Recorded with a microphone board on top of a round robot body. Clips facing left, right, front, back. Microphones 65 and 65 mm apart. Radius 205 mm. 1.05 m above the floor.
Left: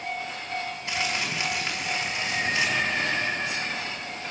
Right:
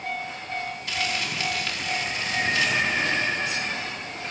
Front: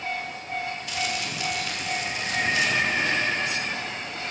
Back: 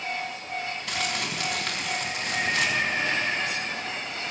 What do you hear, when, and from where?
0.9 s crumpling: 160° left, 5 m